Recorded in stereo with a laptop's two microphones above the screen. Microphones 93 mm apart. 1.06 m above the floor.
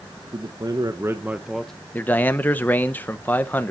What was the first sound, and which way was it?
A man speaking, 60° right (ahead or behind).